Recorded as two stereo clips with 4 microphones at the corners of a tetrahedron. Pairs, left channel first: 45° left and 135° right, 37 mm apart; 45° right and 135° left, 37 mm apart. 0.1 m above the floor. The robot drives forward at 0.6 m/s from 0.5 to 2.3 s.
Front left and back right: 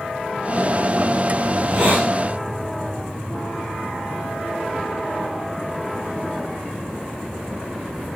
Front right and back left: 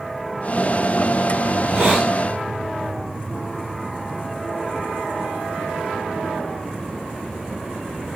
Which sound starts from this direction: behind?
A hiss, at 1.5 s.